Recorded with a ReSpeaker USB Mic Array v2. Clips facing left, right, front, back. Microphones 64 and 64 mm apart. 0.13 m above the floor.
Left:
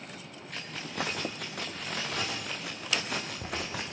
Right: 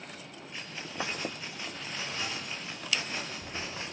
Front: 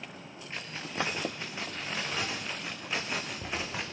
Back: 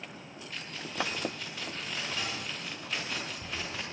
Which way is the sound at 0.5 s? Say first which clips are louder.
Left 3 dB, front 2 dB; 65° left.